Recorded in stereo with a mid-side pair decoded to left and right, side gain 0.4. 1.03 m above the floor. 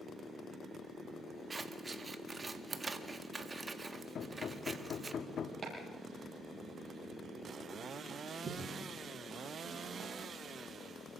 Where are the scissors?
30° right, 1.6 m.